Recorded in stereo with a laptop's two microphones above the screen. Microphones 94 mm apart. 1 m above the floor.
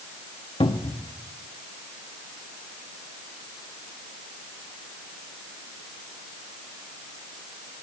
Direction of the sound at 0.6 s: 80° left.